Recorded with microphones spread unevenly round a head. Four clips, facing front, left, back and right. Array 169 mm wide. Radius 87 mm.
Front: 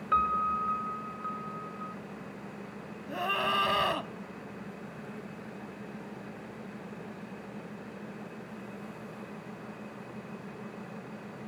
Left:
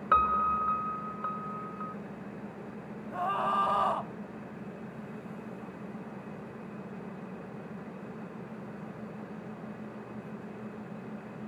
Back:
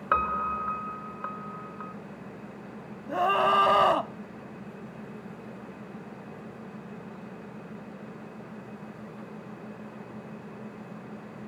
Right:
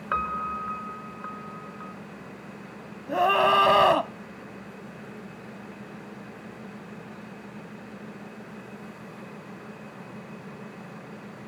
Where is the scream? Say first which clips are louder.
Right 9 dB, back 8 dB; 105° right.